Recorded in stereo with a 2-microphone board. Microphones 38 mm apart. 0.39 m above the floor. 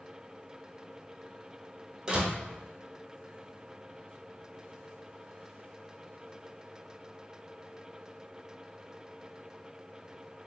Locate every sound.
2.1 s a door slam: 20° right (ahead or behind), 0.6 m